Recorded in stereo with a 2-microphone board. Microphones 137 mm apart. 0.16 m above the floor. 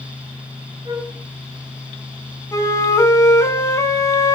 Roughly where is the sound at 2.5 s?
Left.